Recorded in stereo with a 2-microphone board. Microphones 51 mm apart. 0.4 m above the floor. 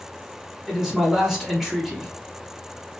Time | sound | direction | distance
0.7 | a man speaking | 5° right (ahead or behind) | 1.4 m